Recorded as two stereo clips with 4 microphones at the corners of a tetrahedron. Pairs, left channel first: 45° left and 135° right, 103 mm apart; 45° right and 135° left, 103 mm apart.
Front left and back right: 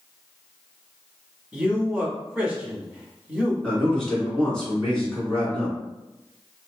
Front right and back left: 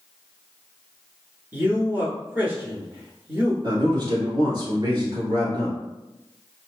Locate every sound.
1.5 s a man speaking: 170° left, 1.1 m
3.6 s a man speaking: 125° left, 1.7 m